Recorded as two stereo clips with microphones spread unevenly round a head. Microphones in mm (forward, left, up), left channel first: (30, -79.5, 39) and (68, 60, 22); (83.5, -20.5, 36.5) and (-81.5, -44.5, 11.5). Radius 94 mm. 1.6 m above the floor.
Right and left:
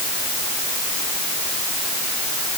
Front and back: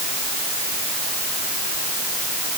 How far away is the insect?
I don't hear an insect.